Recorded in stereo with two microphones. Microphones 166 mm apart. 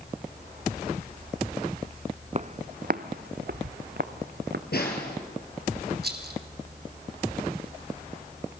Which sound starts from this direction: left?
A snare drum, at 4.7 s.